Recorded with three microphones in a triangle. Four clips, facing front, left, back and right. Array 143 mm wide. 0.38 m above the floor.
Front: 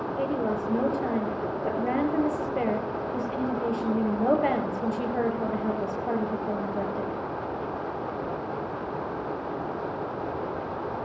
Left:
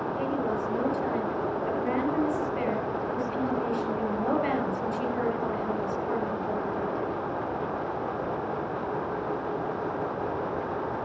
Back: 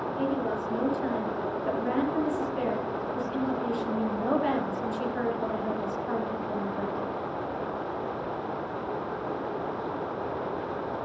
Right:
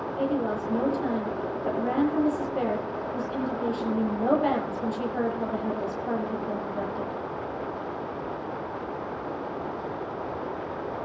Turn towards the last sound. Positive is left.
turn(degrees=-15)